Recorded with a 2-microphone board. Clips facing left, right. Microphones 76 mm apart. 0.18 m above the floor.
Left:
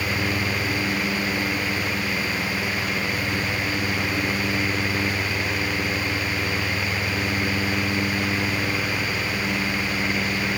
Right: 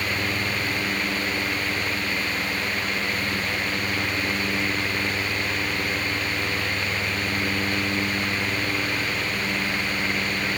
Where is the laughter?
I don't hear laughter.